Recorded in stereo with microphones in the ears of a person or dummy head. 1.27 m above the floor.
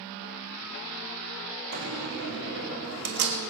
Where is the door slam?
60° right (ahead or behind), 1.6 m.